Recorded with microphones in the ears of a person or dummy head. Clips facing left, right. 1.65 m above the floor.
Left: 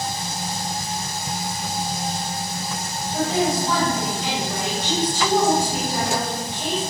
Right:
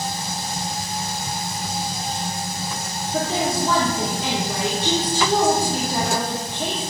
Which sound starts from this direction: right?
A woman speaking, at 3.1 s.